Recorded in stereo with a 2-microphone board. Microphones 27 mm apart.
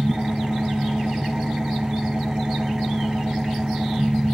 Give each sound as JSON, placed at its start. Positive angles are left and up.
{"t": 0.0, "sound": "an engine running", "side_deg": -15, "distance_m": 0.9}